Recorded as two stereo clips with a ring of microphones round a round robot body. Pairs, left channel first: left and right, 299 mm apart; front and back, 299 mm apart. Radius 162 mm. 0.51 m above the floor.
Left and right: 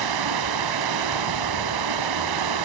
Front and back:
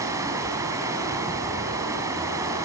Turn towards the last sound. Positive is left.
turn(degrees=-100)